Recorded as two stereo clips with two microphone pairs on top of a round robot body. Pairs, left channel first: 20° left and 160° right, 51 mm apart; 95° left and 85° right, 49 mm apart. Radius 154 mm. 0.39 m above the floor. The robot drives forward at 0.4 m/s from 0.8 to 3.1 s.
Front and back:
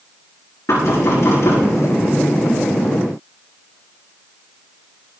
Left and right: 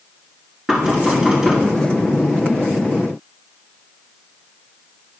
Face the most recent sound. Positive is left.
turn(degrees=-10)